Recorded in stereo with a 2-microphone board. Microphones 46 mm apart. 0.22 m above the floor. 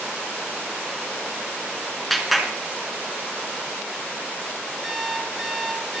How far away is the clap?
About 1.9 m.